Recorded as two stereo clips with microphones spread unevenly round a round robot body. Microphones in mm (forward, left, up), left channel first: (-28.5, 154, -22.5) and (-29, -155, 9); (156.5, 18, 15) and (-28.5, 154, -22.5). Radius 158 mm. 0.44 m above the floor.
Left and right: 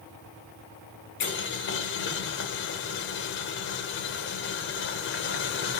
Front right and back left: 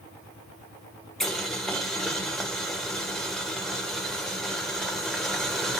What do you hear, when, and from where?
1.2 s boiling: 60° left, 1.6 m